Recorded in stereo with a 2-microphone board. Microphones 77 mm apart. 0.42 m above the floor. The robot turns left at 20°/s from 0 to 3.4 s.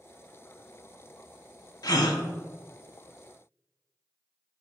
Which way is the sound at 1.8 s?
60° left (ahead or behind).